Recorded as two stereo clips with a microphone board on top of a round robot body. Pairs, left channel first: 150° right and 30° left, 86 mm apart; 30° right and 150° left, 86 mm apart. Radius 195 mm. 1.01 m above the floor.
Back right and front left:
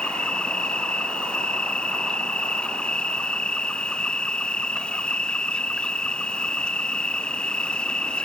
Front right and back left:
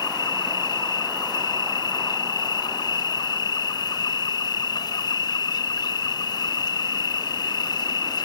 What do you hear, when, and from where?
0.0 s an insect: 70° right